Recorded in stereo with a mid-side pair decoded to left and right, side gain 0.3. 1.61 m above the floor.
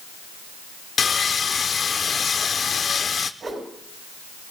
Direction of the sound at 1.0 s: 65° left.